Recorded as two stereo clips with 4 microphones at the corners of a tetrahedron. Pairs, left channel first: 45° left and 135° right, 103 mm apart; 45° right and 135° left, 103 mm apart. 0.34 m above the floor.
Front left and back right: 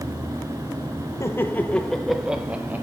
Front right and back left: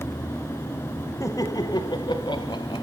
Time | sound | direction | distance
1.2 | laughter | 5° right | 1.4 m